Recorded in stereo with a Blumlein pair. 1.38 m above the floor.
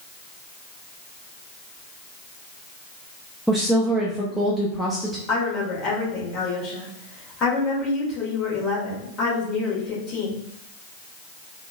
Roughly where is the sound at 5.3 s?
Ahead left.